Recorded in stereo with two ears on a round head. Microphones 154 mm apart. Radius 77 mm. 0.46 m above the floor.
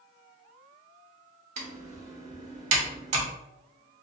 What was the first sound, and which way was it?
Typing on a keyboard, 40° right (ahead or behind).